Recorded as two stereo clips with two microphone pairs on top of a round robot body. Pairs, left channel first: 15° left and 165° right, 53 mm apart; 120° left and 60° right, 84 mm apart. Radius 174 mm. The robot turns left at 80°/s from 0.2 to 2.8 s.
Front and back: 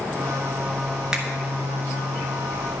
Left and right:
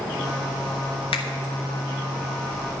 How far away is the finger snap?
About 1.2 m.